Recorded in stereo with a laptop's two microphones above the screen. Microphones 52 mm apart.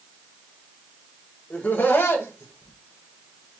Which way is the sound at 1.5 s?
30° left (ahead or behind).